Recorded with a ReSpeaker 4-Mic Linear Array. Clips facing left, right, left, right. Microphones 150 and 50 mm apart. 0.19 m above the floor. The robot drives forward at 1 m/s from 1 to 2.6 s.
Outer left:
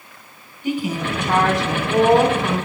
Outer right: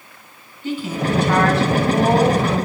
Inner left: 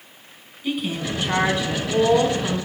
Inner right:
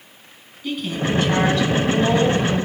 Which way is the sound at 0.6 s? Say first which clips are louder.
Even, inner right 2 dB; 15° left (ahead or behind).